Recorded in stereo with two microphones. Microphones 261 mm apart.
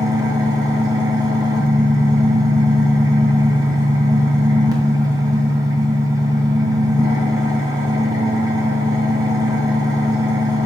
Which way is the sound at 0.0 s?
15° right (ahead or behind).